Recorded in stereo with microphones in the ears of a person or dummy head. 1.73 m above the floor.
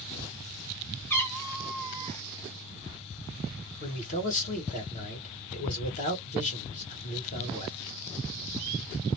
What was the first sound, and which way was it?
A cat meowing, 15° left (ahead or behind).